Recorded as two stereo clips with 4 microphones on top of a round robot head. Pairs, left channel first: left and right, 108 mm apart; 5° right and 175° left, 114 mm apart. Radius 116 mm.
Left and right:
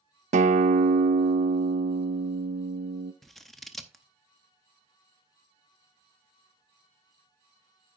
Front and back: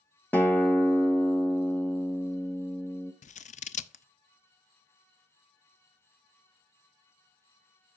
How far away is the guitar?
About 0.5 m.